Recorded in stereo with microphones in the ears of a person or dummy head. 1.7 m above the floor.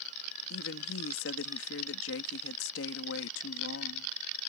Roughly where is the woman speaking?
Left.